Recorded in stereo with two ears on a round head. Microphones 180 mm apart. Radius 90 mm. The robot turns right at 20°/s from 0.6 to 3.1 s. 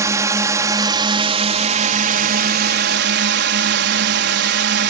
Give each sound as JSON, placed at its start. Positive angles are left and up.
{"t": 0.0, "sound": "a drone", "azimuth_deg": -160}